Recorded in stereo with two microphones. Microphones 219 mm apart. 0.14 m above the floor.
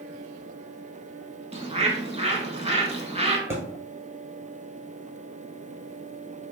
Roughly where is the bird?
Right.